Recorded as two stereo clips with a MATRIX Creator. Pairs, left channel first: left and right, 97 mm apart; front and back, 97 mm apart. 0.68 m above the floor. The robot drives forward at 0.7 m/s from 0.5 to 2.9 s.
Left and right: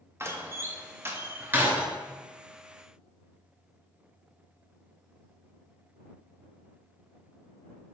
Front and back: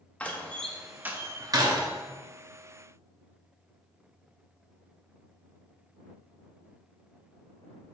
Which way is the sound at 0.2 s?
60° right.